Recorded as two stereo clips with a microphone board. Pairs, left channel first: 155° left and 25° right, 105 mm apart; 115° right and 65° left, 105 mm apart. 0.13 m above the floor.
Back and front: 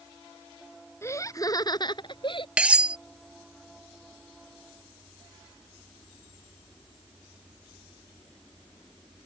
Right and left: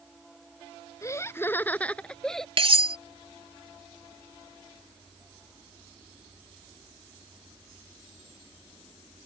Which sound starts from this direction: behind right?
Laughter, at 1.0 s.